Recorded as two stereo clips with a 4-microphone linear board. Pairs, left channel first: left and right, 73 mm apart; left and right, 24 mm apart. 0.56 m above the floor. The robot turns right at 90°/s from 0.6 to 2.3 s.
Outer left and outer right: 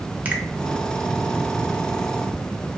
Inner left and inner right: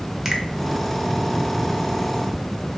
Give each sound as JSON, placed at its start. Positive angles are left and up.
{"t": 0.2, "sound": "a finger snap", "side_deg": -20, "distance_m": 0.6}